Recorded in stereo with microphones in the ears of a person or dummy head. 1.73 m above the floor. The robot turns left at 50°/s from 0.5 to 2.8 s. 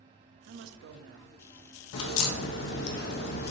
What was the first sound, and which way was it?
A woman speaking, 70° right.